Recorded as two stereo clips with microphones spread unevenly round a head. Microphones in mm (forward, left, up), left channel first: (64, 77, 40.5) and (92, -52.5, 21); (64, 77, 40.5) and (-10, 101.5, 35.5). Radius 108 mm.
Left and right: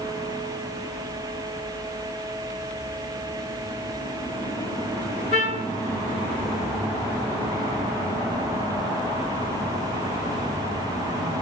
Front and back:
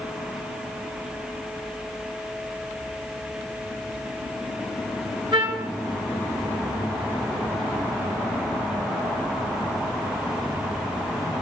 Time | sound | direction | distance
5.3 | a trumpet | 140° right | 0.9 m